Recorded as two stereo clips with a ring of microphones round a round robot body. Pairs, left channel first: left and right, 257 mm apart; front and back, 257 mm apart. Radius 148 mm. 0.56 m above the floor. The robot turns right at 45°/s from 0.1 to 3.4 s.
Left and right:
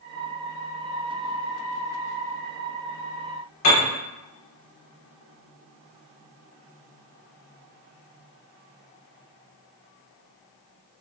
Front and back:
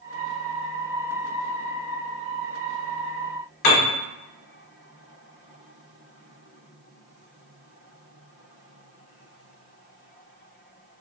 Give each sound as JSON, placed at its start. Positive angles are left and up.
{"t": 3.6, "sound": "a piano", "azimuth_deg": 25, "distance_m": 0.7}